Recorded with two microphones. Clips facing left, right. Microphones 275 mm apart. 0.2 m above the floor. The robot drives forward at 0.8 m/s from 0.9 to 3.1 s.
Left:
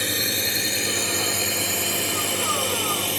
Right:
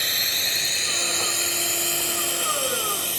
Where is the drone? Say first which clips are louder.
Left 9 dB; 60° left (ahead or behind); by 3.2 s 70° left (ahead or behind).